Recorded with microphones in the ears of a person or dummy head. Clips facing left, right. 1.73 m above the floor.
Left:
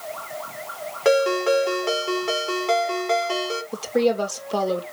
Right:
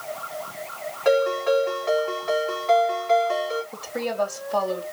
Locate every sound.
1.1 s a ringtone: 45° left (ahead or behind), 3.5 m
3.7 s a woman speaking: 45° left (ahead or behind), 2.5 m